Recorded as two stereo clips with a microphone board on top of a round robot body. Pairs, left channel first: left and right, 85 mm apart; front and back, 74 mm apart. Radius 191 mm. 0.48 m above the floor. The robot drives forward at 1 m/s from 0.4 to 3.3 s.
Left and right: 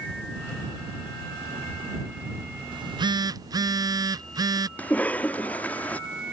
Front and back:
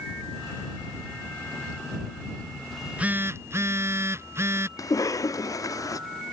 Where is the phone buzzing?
85° right; by 4.7 s 125° right.